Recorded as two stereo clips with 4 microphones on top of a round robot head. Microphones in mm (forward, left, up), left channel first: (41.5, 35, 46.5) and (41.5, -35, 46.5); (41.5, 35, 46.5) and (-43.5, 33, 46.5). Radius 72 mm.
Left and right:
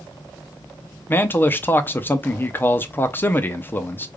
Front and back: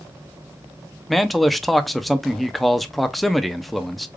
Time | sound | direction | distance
1.1 | a man speaking | 90° left | 0.6 m